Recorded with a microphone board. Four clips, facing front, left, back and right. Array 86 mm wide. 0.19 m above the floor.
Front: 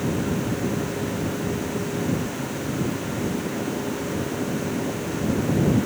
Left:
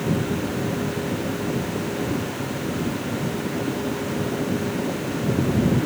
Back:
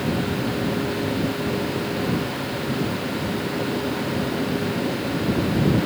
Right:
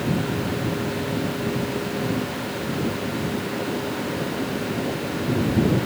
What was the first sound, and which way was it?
Only background noise.